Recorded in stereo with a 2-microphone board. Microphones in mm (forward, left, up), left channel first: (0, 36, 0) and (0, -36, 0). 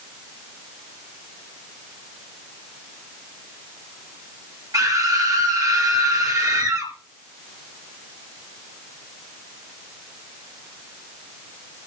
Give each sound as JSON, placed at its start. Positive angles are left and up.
{"t": 4.7, "sound": "a scream", "side_deg": -55, "distance_m": 5.0}